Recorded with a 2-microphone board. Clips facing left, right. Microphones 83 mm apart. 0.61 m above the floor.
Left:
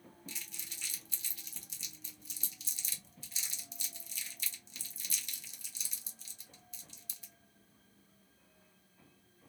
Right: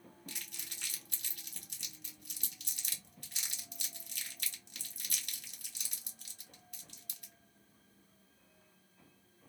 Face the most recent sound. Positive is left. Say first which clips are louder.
# right 1 dB
turn(degrees=-55)  # may be behind; listen again after turning